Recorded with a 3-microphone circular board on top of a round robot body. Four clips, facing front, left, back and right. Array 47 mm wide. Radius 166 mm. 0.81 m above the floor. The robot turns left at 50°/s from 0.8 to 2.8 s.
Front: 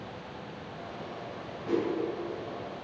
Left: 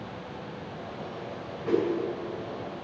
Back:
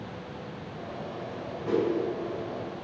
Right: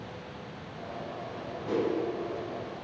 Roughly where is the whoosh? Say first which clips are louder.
Left 3 dB, back 3 dB; left.